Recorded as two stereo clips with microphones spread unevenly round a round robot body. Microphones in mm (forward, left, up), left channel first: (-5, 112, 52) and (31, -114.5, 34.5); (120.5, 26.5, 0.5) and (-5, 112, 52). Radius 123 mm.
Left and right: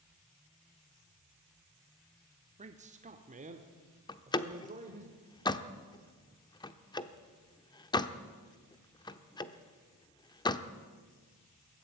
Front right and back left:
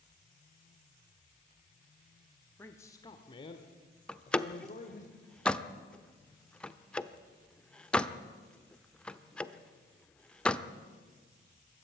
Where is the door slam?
25° left, 0.9 m.